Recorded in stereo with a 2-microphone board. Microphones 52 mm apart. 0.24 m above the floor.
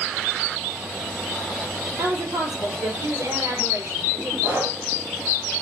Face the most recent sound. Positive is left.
turn(degrees=-65)  # may be behind; listen again after turning